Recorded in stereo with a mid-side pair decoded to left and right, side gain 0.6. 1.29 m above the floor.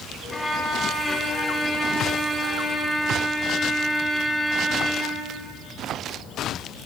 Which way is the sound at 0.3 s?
5° left.